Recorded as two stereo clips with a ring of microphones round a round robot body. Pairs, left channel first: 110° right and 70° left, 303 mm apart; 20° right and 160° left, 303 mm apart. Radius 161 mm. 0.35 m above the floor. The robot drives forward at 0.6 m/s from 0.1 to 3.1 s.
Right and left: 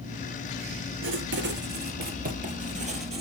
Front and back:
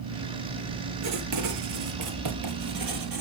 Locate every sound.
1.0 s writing: 120° left, 2.5 m; by 3.2 s 140° left, 3.5 m